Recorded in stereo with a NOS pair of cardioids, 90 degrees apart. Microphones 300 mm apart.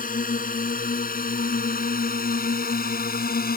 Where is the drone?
25° left; by 3.6 s 30° left.